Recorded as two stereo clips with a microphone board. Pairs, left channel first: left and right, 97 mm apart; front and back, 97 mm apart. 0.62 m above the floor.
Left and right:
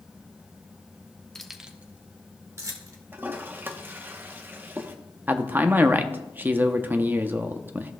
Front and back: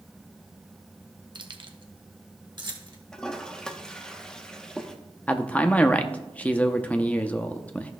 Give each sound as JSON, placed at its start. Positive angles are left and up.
{"t": 1.4, "sound": "keys jangling", "azimuth_deg": 170, "distance_m": 0.6}
{"t": 3.1, "sound": "a toilet flushing", "azimuth_deg": -70, "distance_m": 0.8}
{"t": 5.3, "sound": "a man speaking", "azimuth_deg": -50, "distance_m": 0.6}